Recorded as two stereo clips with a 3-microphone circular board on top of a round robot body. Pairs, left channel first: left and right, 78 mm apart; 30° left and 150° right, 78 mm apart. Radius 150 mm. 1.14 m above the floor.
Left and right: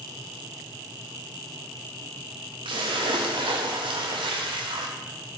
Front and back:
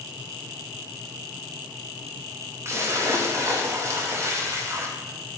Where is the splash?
95° right, 1.0 m.